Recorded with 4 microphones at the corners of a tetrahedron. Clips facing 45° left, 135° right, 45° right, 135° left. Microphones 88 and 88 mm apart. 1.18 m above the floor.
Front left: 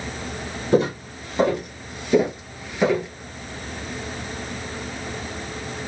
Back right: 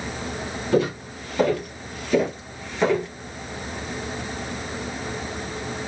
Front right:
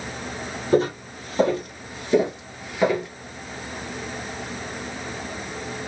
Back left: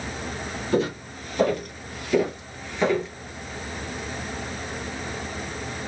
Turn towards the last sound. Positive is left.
turn(degrees=-15)